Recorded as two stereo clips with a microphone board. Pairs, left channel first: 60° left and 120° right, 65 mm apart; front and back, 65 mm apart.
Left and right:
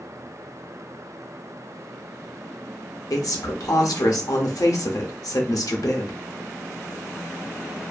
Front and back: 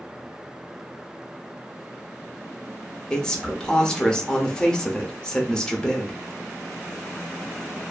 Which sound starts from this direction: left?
A woman speaking, at 3.1 s.